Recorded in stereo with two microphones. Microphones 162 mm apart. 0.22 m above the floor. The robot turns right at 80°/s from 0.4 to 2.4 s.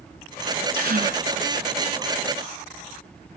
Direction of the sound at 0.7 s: 105° right.